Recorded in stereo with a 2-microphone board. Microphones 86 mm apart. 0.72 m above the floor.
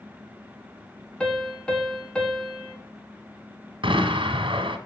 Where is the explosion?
80° right, 1.8 m.